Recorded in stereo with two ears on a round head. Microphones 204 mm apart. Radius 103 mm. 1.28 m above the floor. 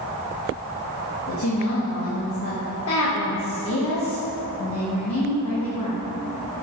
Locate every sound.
1.3 s a woman speaking: 65° left (ahead or behind), 1.7 m